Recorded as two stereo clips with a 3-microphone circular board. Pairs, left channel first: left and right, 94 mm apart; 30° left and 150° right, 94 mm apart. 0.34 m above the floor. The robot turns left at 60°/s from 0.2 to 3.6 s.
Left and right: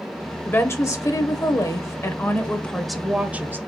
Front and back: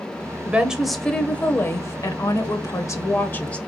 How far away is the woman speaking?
About 1.0 m.